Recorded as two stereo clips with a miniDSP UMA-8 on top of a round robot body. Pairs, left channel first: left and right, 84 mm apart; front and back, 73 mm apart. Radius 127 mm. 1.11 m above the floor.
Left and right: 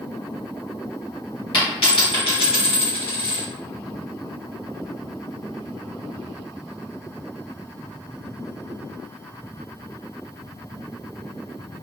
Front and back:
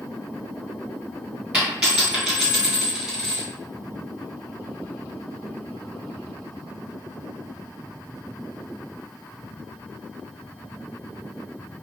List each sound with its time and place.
1.5 s a dropped coin: 105° left, 1.5 m